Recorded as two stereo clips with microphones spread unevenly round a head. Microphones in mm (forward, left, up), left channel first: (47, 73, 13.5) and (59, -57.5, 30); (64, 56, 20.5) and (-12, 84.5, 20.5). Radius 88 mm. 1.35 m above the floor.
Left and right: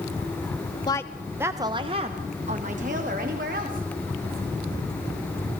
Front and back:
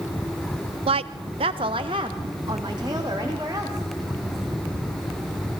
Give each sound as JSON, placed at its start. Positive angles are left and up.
{"t": 0.9, "sound": "a woman speaking", "azimuth_deg": 160, "distance_m": 0.6}